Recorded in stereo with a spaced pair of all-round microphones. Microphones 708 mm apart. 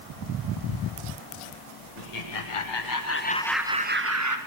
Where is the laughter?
65° left (ahead or behind), 1.2 m; by 4.4 s 25° right (ahead or behind), 1.2 m.